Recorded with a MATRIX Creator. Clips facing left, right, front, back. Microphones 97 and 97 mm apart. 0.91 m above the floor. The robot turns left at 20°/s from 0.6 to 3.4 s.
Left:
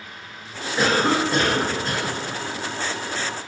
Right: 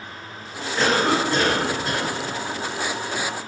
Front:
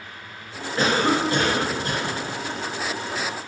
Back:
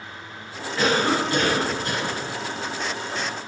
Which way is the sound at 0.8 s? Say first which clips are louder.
Even, front 1 dB; 20° left.